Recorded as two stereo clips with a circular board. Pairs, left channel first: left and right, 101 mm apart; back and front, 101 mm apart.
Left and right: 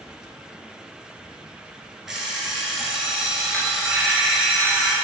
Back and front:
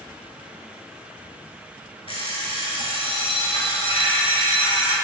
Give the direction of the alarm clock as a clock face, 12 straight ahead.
6 o'clock.